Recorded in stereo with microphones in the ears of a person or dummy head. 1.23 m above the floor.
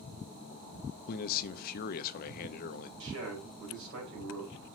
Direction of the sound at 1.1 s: 55° left (ahead or behind).